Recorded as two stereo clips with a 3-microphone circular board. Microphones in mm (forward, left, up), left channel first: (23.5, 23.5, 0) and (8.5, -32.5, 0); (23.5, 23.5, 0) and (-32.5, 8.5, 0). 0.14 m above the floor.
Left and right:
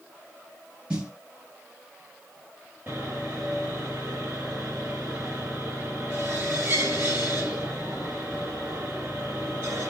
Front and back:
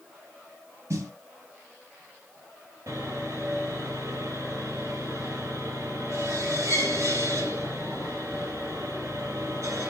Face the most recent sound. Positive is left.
turn(degrees=-150)